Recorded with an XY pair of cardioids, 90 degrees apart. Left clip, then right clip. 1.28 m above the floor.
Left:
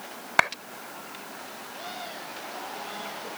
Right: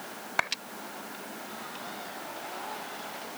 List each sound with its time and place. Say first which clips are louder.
0.4 s a clap: left 7 dB; 55° left